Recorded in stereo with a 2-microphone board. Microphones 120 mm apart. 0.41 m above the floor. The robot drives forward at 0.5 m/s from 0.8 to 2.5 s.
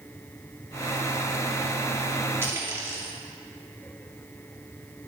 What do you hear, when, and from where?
2.4 s a dropped coin: 20° right (ahead or behind), 2.5 m